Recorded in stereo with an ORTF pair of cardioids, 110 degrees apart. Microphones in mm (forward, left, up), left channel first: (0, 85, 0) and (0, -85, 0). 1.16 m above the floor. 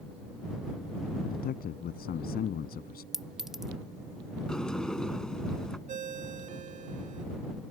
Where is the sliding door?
5° left.